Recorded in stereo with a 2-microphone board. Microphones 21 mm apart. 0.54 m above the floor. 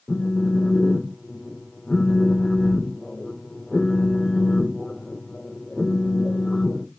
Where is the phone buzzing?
25° left (ahead or behind), 1.3 m.